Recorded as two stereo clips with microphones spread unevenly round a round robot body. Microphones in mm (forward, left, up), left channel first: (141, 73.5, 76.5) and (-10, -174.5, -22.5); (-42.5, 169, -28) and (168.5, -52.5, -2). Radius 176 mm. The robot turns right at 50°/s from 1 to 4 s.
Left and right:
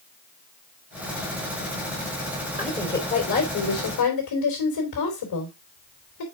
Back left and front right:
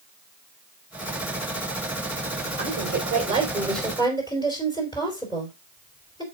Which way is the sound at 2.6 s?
15° right.